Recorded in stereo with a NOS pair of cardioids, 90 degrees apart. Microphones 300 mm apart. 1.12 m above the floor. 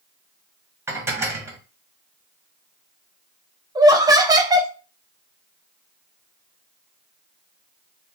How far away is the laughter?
About 0.8 m.